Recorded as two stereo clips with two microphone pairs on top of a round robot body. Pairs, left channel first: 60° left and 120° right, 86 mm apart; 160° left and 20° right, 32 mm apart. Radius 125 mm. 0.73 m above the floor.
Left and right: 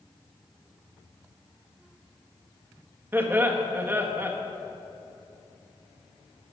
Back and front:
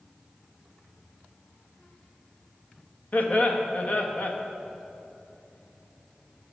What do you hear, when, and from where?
3.1 s laughter: 175° left, 1.6 m